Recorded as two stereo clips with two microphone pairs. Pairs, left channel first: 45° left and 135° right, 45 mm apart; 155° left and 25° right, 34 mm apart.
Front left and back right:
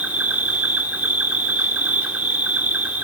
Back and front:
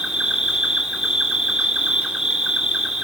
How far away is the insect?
About 1.5 m.